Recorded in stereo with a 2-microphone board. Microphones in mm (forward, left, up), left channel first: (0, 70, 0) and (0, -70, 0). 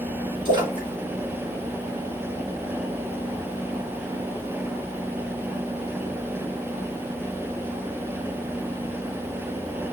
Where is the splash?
35° right (ahead or behind), 1.9 m.